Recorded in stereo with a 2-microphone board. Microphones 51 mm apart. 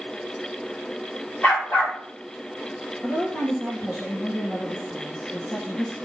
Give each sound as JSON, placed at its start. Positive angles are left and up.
{"t": 1.4, "sound": "a dog barking", "side_deg": 35, "distance_m": 4.0}
{"t": 3.0, "sound": "a woman speaking", "side_deg": 25, "distance_m": 2.5}